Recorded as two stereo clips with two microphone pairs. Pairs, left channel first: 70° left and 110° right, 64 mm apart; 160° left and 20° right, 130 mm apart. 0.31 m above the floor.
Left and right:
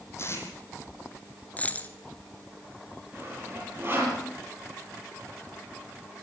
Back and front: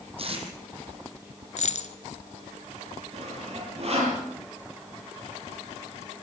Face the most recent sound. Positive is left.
turn(degrees=-55)